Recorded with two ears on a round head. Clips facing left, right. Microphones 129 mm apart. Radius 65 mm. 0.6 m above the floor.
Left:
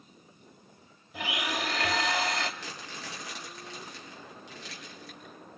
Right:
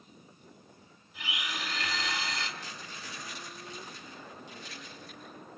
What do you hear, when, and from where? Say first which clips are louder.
1.1 s a blender: left 7 dB; 50° left (ahead or behind), 2 m
2.6 s crumpling: left 3 dB; 60° left (ahead or behind), 7.5 m